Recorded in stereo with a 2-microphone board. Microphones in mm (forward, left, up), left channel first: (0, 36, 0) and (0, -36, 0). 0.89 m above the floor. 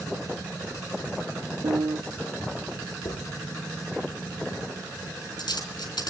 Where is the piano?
85° right, 0.8 m.